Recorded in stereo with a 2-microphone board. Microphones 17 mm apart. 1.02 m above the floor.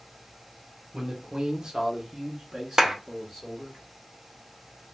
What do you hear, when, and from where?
0.9 s a man speaking: 35° right (ahead or behind), 0.9 m; by 3.8 s 15° right (ahead or behind), 1.3 m
2.8 s a clap: 40° right (ahead or behind), 0.7 m